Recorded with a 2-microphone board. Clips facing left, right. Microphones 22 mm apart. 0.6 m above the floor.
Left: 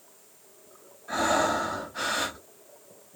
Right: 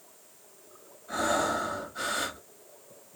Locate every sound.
1.1 s breathing: 40° left (ahead or behind), 1.1 m